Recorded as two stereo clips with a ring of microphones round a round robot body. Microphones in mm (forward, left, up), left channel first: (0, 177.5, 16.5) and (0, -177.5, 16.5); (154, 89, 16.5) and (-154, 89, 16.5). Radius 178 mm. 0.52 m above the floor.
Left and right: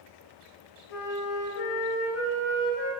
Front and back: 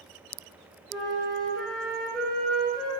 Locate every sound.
0.9 s a flute: 90° left, 3 m